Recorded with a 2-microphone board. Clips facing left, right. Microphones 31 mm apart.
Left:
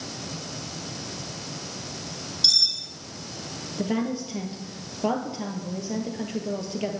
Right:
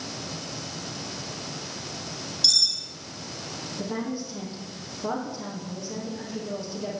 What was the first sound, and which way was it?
Cutlery clinking, 20° left (ahead or behind).